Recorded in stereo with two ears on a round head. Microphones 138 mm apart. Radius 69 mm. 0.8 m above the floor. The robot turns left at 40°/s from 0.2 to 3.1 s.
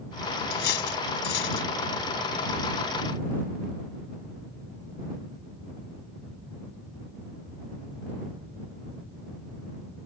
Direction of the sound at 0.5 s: 70° left (ahead or behind).